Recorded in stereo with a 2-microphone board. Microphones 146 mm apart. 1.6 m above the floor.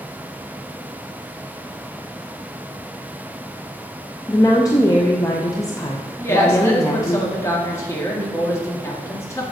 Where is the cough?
No cough in this recording.